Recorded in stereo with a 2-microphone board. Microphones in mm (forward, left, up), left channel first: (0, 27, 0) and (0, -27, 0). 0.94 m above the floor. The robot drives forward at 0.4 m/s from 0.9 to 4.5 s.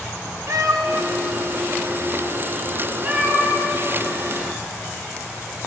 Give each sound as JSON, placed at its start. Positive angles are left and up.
{"t": 0.5, "sound": "a cat meowing", "side_deg": -65, "distance_m": 0.6}